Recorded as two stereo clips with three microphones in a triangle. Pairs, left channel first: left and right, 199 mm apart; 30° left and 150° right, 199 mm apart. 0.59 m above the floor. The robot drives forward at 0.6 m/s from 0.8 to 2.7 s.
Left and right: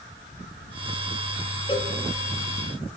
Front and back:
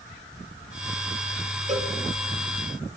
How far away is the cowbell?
About 4 m.